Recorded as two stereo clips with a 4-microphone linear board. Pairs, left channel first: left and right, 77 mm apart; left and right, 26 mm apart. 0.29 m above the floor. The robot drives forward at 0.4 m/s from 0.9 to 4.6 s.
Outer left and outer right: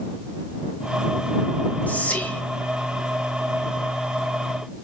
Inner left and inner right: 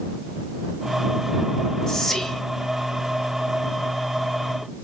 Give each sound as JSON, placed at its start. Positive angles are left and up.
{"t": 1.9, "sound": "whispering", "side_deg": 20, "distance_m": 1.1}